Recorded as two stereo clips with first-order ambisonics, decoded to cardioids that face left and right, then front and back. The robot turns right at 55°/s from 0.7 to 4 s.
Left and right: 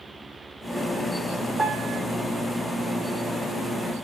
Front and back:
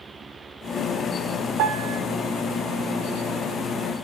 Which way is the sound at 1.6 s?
160° right.